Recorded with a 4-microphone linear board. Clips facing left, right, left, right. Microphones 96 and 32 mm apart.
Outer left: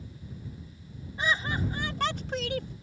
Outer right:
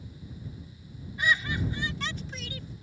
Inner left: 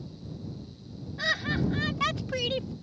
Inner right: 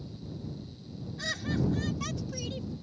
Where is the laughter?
30° left (ahead or behind); by 2.7 s 60° left (ahead or behind).